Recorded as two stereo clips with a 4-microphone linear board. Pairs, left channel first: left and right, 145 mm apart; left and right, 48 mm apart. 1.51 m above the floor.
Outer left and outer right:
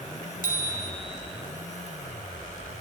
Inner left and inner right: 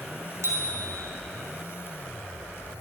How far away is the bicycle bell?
About 5 m.